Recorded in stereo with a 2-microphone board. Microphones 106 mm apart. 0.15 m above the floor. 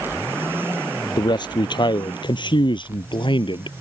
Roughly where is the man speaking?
Left.